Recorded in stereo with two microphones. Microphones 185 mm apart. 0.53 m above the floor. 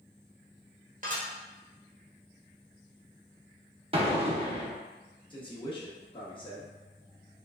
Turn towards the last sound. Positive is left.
turn(degrees=25)  # may be behind; listen again after turning